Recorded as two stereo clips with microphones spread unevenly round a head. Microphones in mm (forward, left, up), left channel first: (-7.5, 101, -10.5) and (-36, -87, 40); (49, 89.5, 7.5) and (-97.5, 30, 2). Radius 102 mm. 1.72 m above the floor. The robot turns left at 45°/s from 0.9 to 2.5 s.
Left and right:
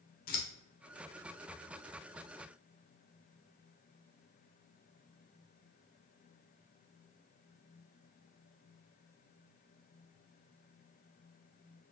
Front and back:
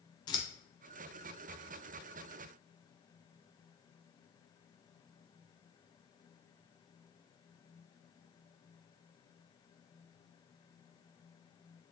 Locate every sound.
0.3 s scissors: 50° left, 0.5 m